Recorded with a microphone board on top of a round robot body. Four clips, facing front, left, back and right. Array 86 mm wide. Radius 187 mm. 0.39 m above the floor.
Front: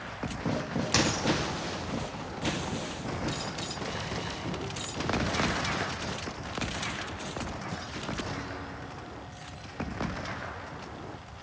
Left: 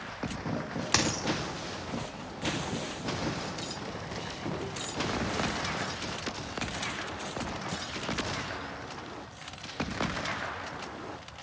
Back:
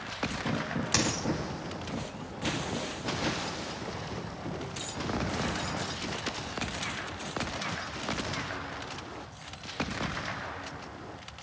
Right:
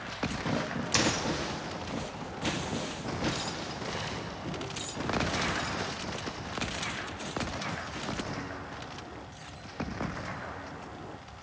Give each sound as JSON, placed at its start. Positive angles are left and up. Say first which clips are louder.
{"t": 0.9, "sound": "a dropped coin", "louder": "right 1 dB, front 4 dB", "azimuth_deg": 95, "distance_m": 2.0}